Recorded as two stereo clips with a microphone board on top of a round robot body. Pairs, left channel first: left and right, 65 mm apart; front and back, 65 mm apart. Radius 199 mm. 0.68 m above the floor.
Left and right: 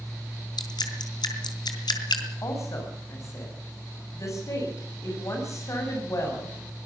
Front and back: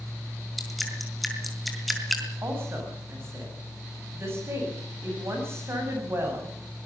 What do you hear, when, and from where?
0.6 s dripping: 90° left, 3.5 m
2.4 s a woman speaking: 130° left, 7 m